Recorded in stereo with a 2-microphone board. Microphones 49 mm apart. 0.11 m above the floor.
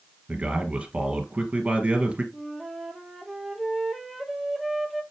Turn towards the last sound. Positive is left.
turn(degrees=-5)  # may be behind; listen again after turning